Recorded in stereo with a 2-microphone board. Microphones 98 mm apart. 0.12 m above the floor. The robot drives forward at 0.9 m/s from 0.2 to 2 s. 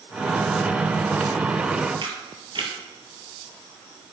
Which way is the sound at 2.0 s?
60° right (ahead or behind).